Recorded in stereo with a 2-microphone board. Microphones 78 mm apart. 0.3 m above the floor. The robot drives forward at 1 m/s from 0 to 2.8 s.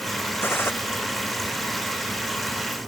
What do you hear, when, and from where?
0.4 s a gunshot: 30° left (ahead or behind)